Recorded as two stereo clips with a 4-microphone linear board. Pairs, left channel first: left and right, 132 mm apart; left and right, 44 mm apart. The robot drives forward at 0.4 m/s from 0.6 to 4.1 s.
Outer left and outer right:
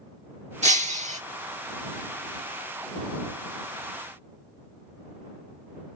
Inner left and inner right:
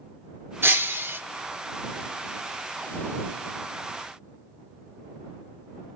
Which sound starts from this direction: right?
Breaking glass, at 0.6 s.